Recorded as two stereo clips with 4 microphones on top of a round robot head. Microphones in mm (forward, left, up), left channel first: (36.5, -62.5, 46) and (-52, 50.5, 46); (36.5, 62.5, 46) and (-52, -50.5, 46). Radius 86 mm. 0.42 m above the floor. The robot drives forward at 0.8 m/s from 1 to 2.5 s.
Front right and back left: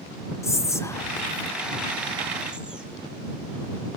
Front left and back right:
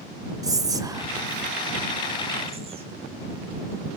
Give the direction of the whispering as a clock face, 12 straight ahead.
3 o'clock.